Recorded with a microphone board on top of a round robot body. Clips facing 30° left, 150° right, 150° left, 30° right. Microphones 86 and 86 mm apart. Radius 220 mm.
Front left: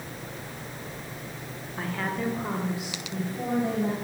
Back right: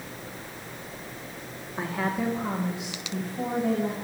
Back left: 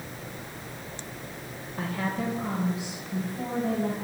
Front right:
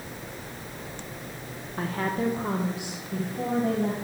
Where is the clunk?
No clunk in this recording.